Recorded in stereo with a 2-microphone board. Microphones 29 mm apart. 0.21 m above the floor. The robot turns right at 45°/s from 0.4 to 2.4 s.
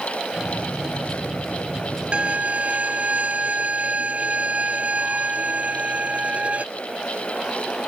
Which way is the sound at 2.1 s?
35° right (ahead or behind).